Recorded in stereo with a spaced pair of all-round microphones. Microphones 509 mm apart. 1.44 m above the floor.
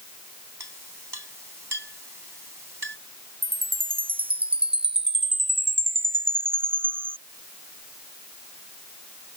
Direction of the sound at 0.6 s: 50° right (ahead or behind).